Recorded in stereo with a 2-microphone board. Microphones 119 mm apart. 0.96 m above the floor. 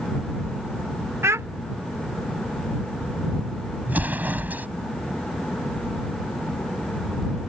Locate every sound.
1.2 s a child speaking: 20° right (ahead or behind)
3.9 s an explosion: 15° right (ahead or behind)